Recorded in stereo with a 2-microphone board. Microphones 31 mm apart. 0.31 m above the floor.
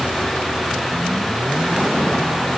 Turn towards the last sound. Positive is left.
No sound to turn to.